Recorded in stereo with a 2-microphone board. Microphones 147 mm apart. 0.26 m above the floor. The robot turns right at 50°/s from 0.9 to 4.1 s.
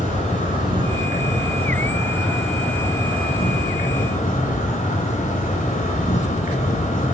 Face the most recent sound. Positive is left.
turn(degrees=80)